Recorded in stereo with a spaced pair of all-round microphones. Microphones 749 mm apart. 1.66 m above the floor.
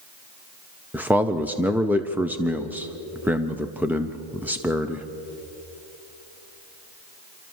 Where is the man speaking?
Centre (ahead or behind), 0.6 m.